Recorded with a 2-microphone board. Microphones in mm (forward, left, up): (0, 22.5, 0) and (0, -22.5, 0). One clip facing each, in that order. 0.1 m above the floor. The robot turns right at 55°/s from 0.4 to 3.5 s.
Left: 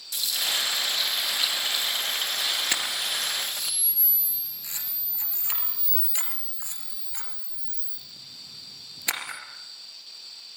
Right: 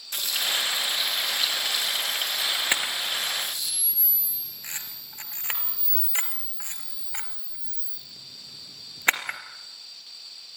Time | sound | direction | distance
0.1 | frying | 40° right | 4 m
2.7 | a camera shutter | 20° right (ahead or behind) | 2.5 m